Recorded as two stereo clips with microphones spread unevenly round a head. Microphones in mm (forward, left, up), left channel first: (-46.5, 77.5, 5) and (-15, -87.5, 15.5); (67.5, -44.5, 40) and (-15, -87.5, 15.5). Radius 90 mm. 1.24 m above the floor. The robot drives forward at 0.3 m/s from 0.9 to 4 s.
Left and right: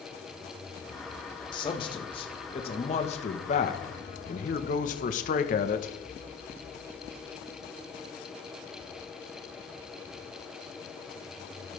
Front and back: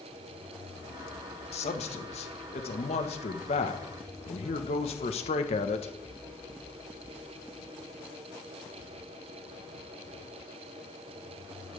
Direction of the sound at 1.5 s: 35° left.